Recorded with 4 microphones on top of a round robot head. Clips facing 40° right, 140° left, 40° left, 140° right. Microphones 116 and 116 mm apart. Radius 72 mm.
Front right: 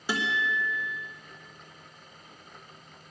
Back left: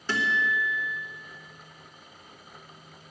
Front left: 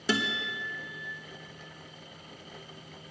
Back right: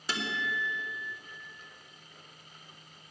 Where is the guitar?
40° left, 1.2 m.